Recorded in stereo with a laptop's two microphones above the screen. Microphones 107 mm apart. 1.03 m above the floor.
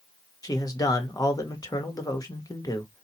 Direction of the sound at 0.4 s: 35° left (ahead or behind).